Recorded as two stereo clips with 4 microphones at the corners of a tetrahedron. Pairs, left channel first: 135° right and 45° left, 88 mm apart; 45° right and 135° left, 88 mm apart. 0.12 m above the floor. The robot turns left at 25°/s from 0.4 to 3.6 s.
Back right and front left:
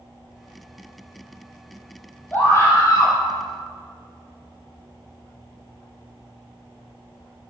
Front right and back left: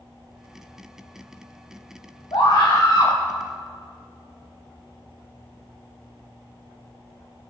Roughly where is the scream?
Right.